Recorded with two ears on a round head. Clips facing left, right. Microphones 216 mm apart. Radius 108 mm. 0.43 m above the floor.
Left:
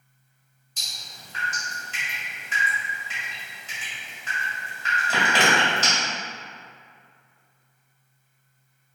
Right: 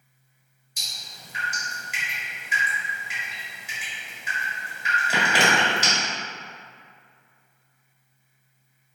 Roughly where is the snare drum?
I don't hear a snare drum.